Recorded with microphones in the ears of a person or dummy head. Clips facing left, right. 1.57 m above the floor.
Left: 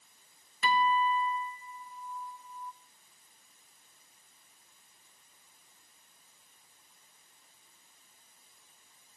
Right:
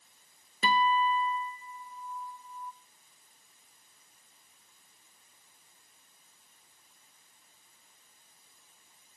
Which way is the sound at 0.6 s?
25° right (ahead or behind).